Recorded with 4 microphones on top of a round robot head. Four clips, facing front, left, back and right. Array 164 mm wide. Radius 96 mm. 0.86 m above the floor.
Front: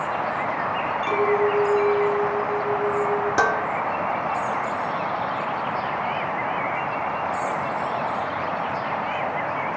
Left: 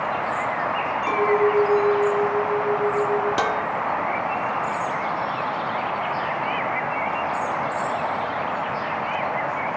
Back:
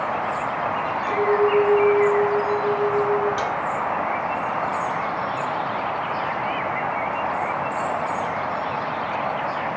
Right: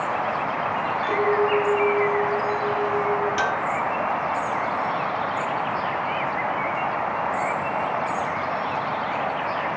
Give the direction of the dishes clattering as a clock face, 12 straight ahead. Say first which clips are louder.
Left 1 dB, front 4 dB; 11 o'clock.